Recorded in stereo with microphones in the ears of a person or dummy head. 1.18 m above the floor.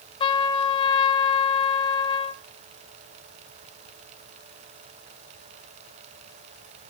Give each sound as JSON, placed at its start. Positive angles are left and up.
{"t": 0.2, "sound": "a trumpet", "side_deg": 25, "distance_m": 0.9}